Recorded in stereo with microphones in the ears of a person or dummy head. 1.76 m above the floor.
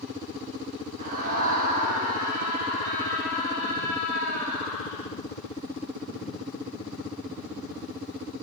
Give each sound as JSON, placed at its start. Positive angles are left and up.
{"t": 1.0, "sound": "a scream", "side_deg": -40, "distance_m": 1.7}